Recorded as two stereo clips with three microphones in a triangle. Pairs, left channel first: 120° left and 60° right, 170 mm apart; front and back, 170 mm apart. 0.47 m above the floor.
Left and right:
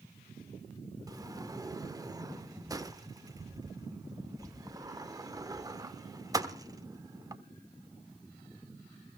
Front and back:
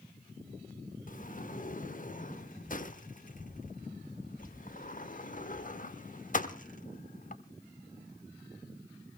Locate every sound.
1.1 s a sliding door: 5° left, 0.9 m